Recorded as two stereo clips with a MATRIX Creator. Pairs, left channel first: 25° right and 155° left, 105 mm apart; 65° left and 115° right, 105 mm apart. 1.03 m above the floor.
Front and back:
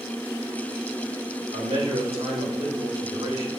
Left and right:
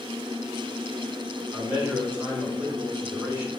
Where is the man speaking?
175° left, 3.5 m.